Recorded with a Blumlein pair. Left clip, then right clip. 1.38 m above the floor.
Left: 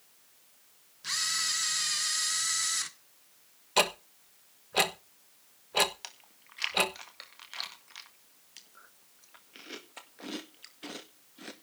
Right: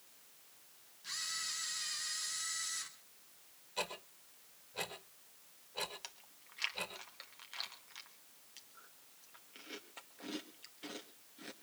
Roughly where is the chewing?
Ahead.